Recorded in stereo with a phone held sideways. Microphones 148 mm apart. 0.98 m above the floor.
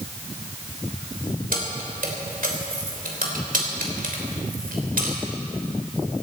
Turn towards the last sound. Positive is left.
turn(degrees=-70)  # may be behind; listen again after turning